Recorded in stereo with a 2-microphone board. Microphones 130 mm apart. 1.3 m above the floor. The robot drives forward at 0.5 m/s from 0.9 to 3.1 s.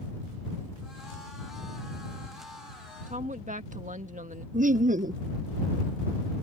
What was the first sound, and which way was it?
A woman speaking, 70° right (ahead or behind).